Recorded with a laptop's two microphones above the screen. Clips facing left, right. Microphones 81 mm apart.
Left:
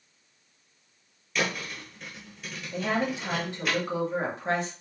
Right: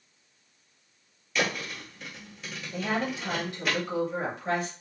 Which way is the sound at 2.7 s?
30° left (ahead or behind).